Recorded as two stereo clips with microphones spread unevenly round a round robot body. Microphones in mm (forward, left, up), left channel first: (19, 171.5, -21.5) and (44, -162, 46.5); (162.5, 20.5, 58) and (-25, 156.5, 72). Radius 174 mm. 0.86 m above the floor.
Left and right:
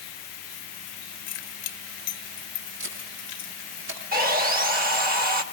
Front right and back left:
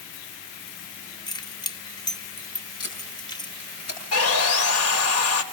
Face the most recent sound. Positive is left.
turn(degrees=-20)